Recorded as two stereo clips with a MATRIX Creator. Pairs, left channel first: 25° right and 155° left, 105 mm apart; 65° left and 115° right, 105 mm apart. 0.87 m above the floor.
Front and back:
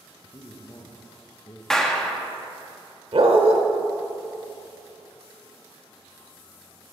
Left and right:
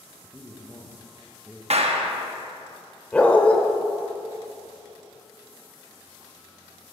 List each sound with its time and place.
0.2 s a man speaking: 30° right, 0.9 m
1.7 s a clap: 110° right, 0.8 m
3.1 s a dog barking: 145° left, 0.9 m